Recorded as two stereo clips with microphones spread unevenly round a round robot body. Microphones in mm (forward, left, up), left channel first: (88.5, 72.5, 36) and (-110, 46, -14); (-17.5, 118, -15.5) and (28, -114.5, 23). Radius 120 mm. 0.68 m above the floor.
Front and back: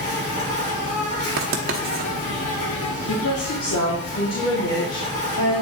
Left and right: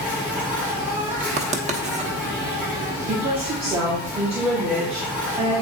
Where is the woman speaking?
10° right, 2 m.